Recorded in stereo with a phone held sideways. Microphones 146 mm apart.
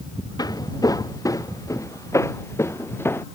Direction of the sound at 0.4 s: 25° left (ahead or behind).